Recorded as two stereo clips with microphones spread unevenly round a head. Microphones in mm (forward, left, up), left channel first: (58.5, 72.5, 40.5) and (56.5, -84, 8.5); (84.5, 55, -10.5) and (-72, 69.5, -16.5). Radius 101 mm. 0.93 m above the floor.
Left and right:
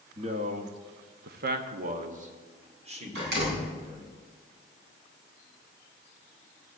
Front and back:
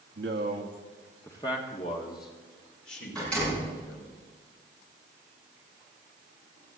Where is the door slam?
90° right, 6.5 m.